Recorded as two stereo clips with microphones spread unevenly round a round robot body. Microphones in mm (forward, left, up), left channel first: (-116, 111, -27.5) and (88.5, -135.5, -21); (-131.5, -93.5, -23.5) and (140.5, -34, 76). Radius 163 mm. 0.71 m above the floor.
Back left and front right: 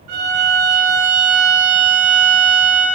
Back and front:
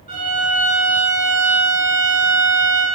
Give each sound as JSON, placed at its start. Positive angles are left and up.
{"t": 0.1, "sound": "a violin", "azimuth_deg": -55, "distance_m": 4.5}